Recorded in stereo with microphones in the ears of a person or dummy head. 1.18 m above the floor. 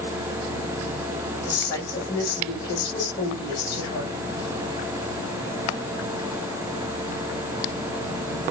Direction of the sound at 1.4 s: 30° left (ahead or behind).